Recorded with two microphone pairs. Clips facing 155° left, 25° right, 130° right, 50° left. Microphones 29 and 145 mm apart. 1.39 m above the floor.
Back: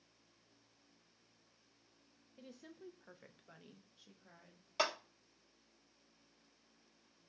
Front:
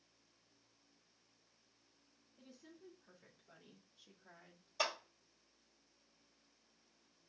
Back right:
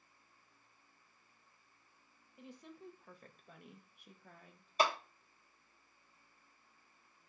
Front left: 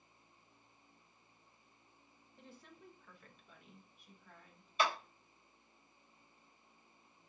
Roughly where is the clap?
Behind.